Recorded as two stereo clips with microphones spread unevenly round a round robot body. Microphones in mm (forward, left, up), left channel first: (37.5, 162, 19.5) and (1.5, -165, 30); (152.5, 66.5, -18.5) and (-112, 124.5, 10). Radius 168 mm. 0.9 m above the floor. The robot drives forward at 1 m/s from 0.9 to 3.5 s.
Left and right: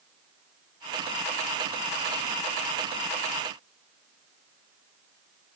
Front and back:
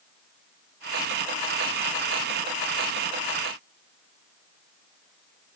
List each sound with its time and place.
Only background noise.